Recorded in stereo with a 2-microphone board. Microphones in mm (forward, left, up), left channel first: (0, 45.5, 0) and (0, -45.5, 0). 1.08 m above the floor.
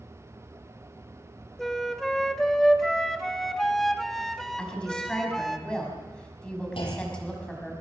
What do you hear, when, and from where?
1.6 s a flute: 5° left (ahead or behind), 1.5 m
4.6 s a woman speaking: 10° left (ahead or behind), 6 m
6.8 s a clunk: 70° left (ahead or behind), 5.5 m